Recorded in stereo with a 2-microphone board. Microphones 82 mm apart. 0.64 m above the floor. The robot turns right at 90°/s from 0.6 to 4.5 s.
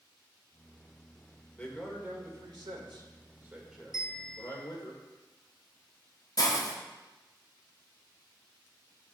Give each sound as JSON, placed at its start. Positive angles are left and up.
{"t": 1.6, "sound": "a man speaking", "azimuth_deg": 160, "distance_m": 2.0}
{"t": 3.9, "sound": "a bell", "azimuth_deg": 125, "distance_m": 1.3}
{"t": 6.4, "sound": "a hiss", "side_deg": 45, "distance_m": 1.0}